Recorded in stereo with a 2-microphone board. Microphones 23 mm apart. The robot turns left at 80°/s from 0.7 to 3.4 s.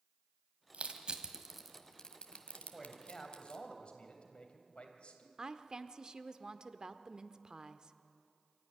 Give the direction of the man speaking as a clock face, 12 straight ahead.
6 o'clock.